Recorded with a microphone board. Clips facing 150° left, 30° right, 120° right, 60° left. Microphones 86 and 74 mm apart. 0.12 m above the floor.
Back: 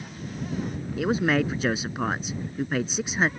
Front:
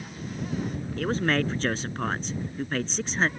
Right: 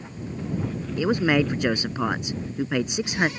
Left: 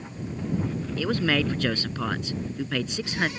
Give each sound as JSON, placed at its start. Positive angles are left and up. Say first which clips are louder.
{"t": 1.0, "sound": "a man speaking", "louder": "back 3 dB, right 4 dB", "azimuth_deg": -145}